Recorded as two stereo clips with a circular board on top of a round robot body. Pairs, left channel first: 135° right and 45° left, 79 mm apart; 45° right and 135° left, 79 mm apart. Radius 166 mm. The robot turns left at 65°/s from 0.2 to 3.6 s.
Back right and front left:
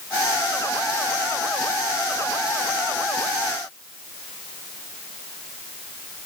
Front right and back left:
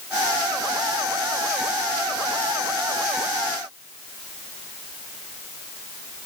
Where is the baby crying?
I don't hear a baby crying.